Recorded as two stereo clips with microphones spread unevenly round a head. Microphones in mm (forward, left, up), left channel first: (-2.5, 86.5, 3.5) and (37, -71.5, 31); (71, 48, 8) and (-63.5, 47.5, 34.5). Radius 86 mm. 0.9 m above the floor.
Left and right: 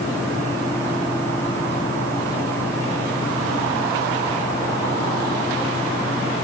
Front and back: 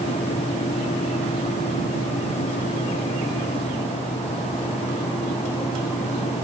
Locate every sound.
Only background noise.